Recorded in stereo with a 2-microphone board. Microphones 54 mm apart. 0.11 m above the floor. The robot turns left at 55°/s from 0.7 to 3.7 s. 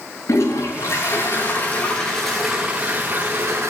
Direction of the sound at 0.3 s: 95° left.